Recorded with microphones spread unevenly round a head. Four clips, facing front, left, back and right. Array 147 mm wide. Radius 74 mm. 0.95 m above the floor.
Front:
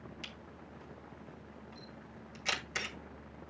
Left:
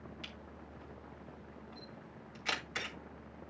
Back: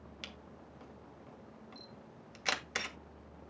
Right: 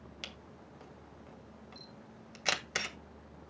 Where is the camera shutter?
105° right, 2 m.